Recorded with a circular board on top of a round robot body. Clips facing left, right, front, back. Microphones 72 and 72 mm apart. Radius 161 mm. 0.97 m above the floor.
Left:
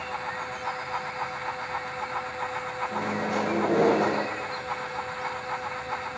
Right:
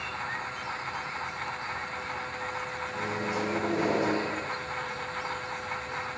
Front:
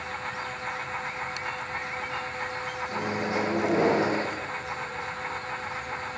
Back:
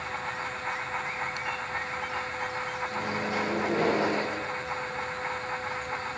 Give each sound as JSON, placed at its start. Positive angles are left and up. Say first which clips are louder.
{"t": 2.9, "sound": "a microwave", "louder": "left 4 dB, front 3 dB", "azimuth_deg": 70, "distance_m": 1.0}